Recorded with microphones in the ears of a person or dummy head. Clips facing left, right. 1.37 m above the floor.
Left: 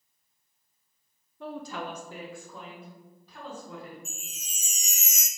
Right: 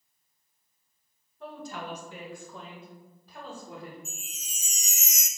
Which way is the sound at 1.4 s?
55° left (ahead or behind).